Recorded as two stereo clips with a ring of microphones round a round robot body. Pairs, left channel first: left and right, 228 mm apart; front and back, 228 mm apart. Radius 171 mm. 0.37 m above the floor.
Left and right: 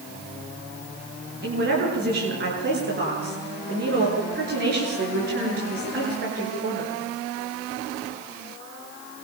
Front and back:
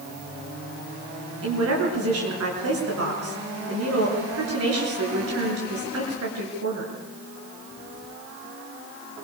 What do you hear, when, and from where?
1.4 s a woman speaking: 150° right, 7.5 m